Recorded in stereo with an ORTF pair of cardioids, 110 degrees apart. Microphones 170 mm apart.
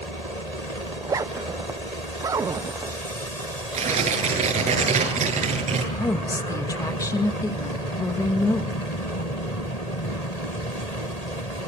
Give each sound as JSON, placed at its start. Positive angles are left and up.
{"t": 0.9, "sound": "a zipper", "azimuth_deg": -20, "distance_m": 0.7}
{"t": 3.7, "sound": "tearing paper", "azimuth_deg": -45, "distance_m": 8.0}
{"t": 5.9, "sound": "a woman speaking", "azimuth_deg": 20, "distance_m": 2.0}